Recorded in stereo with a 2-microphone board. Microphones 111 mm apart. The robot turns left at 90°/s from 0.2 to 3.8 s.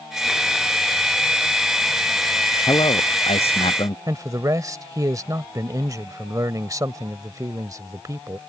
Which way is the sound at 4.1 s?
35° right (ahead or behind).